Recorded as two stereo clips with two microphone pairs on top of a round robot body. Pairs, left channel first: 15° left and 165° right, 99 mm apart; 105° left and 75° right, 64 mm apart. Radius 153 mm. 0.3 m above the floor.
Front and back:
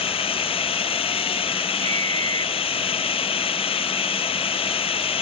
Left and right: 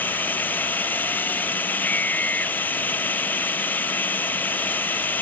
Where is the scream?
170° left.